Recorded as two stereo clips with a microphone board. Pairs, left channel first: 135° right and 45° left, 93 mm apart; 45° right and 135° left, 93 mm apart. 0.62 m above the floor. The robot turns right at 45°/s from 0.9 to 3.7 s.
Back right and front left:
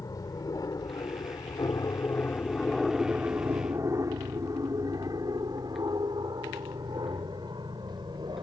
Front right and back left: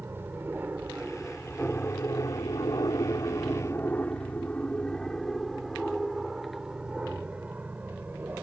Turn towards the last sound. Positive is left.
turn(degrees=70)